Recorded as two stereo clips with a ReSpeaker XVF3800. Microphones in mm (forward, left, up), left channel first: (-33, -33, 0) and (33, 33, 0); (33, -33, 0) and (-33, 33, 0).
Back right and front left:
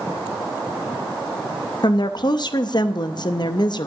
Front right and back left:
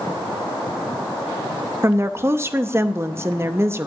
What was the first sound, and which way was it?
A woman speaking, 165° right.